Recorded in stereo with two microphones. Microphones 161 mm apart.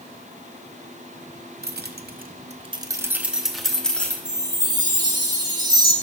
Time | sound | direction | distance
1.6 | keys jangling | 80° right | 0.7 m
4.2 | a chime | 25° right (ahead or behind) | 1.4 m